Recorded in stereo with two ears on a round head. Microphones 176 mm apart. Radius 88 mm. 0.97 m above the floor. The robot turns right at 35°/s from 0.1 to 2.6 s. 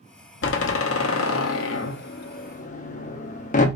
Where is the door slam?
60° left (ahead or behind), 0.8 m; by 3.7 s 40° left (ahead or behind), 0.8 m.